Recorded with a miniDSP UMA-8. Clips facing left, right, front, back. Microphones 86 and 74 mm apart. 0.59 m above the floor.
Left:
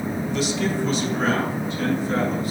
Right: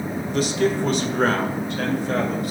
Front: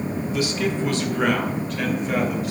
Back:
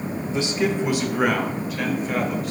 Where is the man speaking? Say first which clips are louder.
Right 5 dB, back 2 dB; 125° right, 1.2 m; by 2.5 s 90° right, 2.5 m.